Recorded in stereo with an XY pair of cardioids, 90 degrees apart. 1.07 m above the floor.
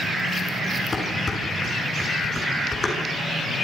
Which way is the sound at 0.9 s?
30° left.